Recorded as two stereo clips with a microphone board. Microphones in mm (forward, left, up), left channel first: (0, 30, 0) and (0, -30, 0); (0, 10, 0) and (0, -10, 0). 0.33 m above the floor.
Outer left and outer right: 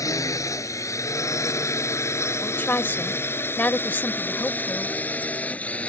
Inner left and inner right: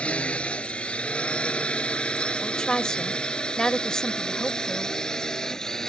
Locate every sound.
0.0 s a drone: 65° left (ahead or behind); by 5.9 s 20° left (ahead or behind)
2.4 s a woman speaking: 30° left (ahead or behind)